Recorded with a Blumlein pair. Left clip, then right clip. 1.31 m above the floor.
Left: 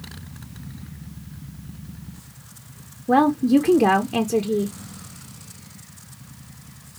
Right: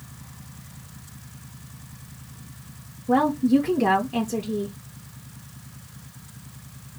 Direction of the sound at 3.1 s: 20° left.